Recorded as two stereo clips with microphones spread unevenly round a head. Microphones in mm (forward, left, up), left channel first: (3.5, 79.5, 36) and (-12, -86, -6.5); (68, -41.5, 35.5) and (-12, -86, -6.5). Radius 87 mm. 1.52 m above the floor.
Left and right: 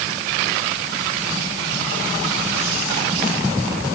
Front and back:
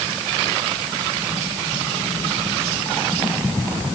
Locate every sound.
Only background noise.